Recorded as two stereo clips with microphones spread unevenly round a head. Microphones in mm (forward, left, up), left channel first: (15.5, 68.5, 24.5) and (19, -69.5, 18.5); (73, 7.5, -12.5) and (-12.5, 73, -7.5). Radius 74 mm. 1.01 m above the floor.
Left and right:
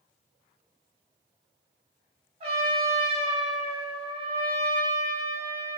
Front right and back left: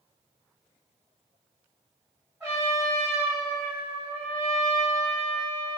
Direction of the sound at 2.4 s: 135° right.